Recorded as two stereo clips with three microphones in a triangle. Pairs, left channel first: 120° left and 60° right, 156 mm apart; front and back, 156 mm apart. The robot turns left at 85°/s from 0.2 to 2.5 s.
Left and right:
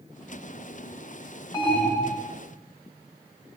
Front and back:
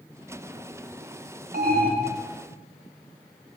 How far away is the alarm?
About 3.5 m.